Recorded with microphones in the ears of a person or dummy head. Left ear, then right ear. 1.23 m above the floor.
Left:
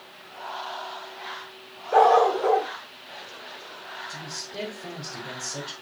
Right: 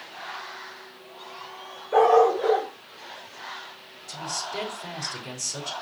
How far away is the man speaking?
About 3.5 m.